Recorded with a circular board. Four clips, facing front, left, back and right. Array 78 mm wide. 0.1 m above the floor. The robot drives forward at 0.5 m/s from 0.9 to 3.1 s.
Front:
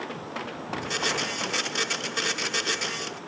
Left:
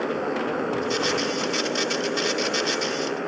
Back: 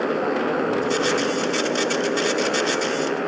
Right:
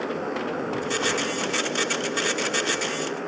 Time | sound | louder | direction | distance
0.0 | a motorcycle | left 2 dB, back 13 dB | 165° left | ?